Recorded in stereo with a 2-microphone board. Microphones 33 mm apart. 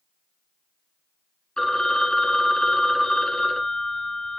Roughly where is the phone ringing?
Left.